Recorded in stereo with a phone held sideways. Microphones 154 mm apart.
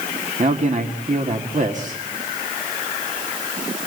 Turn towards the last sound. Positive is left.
turn(degrees=-55)  # may be behind; listen again after turning